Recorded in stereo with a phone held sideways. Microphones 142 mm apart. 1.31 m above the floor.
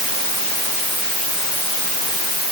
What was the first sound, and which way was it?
Only background noise.